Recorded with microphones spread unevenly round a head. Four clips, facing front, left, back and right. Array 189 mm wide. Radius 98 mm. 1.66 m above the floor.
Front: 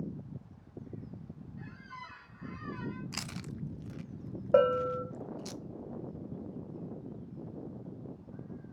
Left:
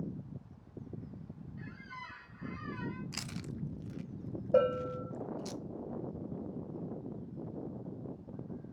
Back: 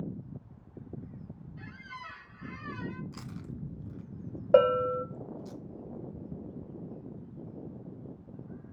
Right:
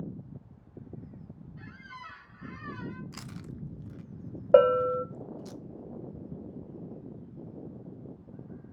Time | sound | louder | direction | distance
1.6 | a squeak | right 1 dB, back 3 dB | 155° right | 1.1 m
3.1 | chewing | even, even | 5° right | 0.5 m
4.5 | a bell | right 9 dB, back 3 dB | 90° right | 0.7 m